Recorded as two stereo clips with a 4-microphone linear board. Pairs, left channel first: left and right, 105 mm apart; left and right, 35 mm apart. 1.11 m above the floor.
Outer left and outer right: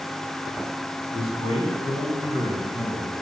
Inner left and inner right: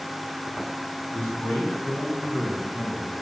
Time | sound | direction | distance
1.1 | a man speaking | 85° left | 5.5 m